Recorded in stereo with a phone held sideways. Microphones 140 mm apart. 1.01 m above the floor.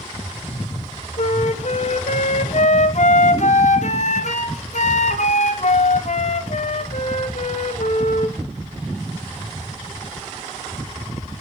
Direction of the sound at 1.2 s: 55° left (ahead or behind).